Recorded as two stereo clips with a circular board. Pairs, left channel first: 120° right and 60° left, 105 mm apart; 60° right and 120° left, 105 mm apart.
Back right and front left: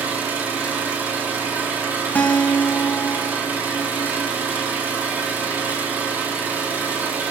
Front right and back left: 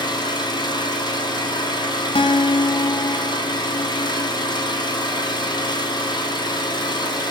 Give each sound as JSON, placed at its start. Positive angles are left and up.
{"t": 0.0, "sound": "an engine running", "azimuth_deg": -15, "distance_m": 1.5}
{"t": 2.1, "sound": "a guitar", "azimuth_deg": -45, "distance_m": 0.6}